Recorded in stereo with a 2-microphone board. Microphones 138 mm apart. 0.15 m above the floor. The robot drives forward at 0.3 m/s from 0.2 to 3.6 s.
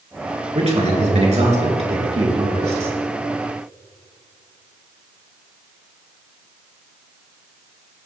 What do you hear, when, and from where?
0.6 s a man speaking: 55° right (ahead or behind), 2.5 m; by 3.0 s 45° right (ahead or behind), 3 m